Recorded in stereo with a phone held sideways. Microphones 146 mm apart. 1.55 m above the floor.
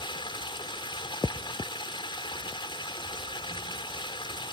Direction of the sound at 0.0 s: 35° left (ahead or behind).